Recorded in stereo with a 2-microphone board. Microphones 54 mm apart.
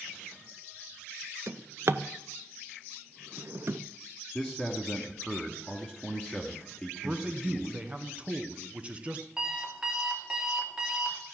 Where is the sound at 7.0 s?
25° right (ahead or behind), 1.2 m.